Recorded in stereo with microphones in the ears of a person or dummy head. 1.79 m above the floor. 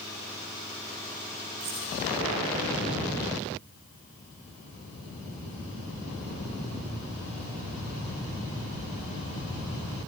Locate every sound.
1.6 s keys jangling: 30° right (ahead or behind), 4 m